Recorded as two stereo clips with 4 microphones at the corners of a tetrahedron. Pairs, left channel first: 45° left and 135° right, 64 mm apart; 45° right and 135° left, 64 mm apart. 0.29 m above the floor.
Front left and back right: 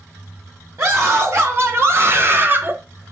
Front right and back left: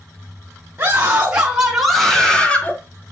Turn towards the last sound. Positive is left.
turn(degrees=-95)